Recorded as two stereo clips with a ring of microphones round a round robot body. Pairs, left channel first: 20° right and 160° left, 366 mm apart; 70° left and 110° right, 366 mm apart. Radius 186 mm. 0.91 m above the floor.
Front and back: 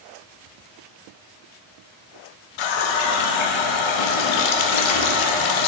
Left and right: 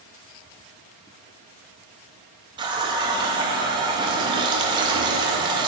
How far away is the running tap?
About 0.6 m.